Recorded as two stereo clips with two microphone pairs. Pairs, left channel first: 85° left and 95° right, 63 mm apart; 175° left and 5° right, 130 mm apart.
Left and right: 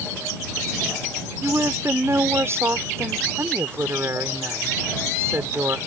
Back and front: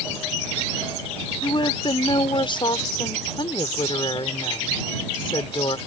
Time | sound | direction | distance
1.4 | a woman speaking | 135° right | ?